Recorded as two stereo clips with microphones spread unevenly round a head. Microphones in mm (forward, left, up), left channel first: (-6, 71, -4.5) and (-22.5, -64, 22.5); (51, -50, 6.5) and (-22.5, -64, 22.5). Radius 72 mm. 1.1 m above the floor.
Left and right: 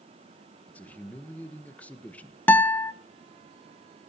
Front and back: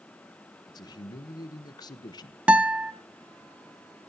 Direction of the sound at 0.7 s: 10° left.